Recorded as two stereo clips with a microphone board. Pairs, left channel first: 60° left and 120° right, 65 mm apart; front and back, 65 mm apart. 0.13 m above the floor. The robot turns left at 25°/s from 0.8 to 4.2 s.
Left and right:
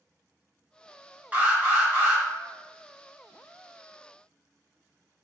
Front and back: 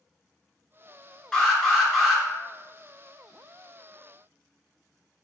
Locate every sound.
1.3 s an alarm: 70° right, 1.0 m; by 2.2 s 95° right, 1.0 m